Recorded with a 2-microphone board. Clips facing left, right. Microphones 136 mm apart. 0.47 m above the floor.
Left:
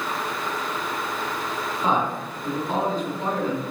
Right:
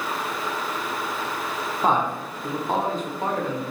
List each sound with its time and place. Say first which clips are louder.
1.8 s a man speaking: right 2 dB; 45° right (ahead or behind), 1.1 m